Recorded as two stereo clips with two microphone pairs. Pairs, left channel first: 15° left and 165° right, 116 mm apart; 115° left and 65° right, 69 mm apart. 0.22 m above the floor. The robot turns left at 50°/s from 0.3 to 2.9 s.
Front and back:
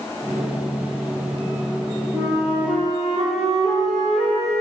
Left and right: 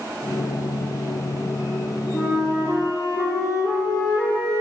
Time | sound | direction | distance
2.1 | a flute | 140° left | 4 m